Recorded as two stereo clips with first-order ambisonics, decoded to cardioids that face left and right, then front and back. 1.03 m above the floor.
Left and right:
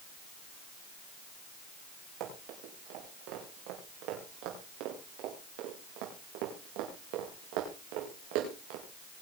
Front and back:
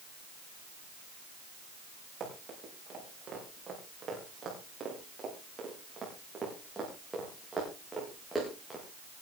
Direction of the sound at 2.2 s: 115° right.